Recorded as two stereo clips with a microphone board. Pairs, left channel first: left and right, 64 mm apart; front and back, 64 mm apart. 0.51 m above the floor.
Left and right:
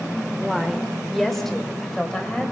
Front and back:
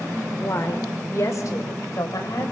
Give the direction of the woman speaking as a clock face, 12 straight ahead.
12 o'clock.